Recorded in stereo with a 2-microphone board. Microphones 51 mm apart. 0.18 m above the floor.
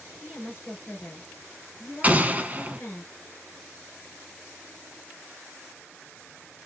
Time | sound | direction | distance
0.2 | a woman speaking | 40° left (ahead or behind) | 3 m
2.0 | an explosion | 30° right (ahead or behind) | 0.7 m